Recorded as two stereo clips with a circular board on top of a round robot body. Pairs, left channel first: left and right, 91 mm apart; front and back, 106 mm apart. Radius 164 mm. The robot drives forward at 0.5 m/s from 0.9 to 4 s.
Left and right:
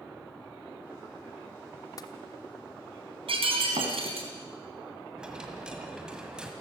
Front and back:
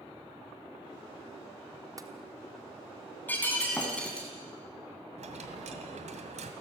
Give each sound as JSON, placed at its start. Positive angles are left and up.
{"t": 2.0, "sound": "tapping", "azimuth_deg": 130, "distance_m": 1.4}
{"t": 3.3, "sound": "breaking glass", "azimuth_deg": -75, "distance_m": 3.0}
{"t": 5.2, "sound": "a dropped coin", "azimuth_deg": -170, "distance_m": 1.7}